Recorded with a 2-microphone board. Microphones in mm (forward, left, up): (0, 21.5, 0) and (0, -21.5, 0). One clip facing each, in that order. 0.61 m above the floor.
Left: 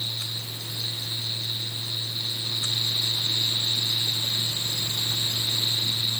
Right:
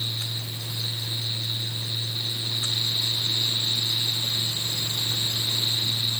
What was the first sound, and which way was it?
Only background noise.